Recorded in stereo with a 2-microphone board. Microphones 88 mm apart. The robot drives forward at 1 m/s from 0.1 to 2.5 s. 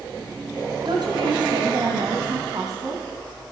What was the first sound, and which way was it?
A woman speaking, 60° right (ahead or behind).